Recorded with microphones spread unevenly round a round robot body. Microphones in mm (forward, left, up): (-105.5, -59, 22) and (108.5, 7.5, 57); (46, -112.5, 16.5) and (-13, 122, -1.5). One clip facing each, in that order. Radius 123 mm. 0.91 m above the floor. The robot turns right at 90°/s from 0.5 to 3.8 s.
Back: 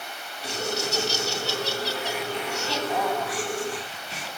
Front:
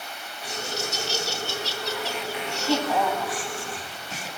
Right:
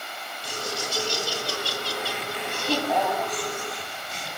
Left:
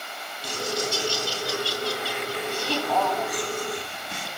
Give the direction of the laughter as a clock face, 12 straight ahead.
8 o'clock.